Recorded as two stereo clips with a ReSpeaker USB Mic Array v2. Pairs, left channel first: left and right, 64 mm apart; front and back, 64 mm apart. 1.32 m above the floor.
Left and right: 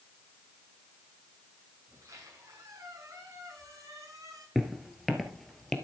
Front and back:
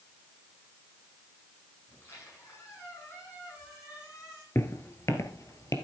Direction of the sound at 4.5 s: 5° right.